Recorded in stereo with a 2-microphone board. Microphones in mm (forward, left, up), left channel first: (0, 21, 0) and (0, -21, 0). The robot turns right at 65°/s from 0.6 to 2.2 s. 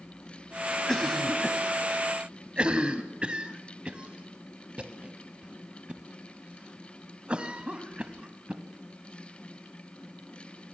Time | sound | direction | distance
0.9 | a cough | 15° left (ahead or behind) | 1.8 m